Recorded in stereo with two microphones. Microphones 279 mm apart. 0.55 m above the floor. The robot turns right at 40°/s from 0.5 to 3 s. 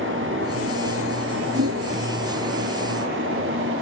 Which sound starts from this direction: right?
A whoosh, at 1.5 s.